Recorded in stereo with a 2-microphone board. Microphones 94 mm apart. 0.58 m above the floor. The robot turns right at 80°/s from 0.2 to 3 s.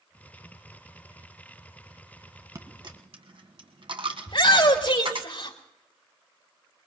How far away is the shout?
About 3 m.